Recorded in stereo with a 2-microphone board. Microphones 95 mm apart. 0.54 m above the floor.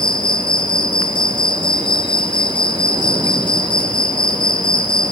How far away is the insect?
About 3 m.